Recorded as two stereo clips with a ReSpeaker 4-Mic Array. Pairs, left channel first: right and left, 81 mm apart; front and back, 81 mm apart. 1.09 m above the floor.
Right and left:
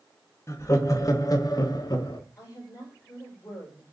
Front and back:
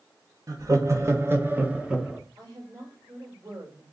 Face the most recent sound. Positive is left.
turn(degrees=-135)